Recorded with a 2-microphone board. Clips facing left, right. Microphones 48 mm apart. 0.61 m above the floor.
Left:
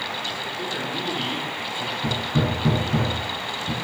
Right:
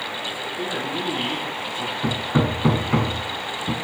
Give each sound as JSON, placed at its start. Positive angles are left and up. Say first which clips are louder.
{"t": 0.6, "sound": "a man speaking", "louder": "right 4 dB", "side_deg": -50, "distance_m": 4.5}
{"t": 2.0, "sound": "hammering", "louder": "right 3 dB", "side_deg": -45, "distance_m": 1.4}